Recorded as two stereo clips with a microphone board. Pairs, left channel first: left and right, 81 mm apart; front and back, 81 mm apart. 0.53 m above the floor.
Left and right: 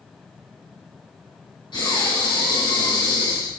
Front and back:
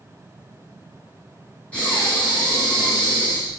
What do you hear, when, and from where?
1.7 s breathing: 75° left, 2 m